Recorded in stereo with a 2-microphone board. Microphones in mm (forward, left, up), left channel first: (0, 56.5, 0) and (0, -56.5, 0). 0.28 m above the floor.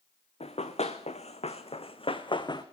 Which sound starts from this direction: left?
Running footsteps, at 0.4 s.